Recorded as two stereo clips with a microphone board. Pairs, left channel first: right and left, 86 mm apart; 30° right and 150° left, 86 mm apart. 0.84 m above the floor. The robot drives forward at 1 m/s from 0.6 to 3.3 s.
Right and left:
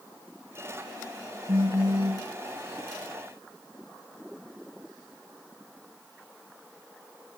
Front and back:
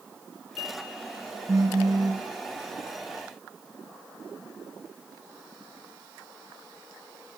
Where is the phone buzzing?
100° left, 1.5 m; by 2.3 s 125° left, 1.8 m.